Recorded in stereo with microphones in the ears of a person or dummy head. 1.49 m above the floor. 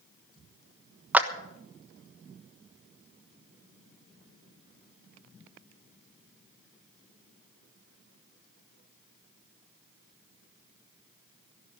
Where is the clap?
10° right (ahead or behind), 1.2 m.